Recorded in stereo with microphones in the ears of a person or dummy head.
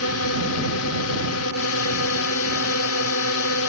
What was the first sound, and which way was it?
A drone, 75° left (ahead or behind).